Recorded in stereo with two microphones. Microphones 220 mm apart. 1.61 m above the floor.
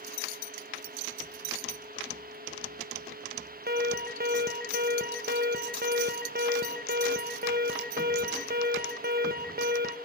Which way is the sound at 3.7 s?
45° right (ahead or behind).